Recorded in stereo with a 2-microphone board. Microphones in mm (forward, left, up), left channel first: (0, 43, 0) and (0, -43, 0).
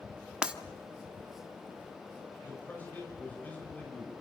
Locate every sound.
0.4 s breaking glass: 10° right (ahead or behind), 1.0 m
2.4 s a man speaking: 20° left (ahead or behind), 4.5 m